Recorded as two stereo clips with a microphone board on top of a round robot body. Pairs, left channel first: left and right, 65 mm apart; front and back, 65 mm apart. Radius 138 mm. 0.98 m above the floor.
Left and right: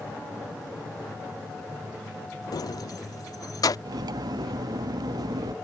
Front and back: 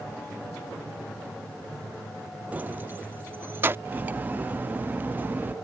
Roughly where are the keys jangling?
Left.